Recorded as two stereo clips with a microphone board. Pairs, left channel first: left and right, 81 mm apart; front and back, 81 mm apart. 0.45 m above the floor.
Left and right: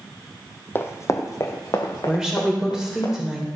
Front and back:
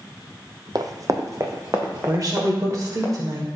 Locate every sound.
0.8 s running footsteps: 145° left, 0.8 m; by 3.1 s 120° left, 3.5 m
2.1 s a woman speaking: 170° right, 1.5 m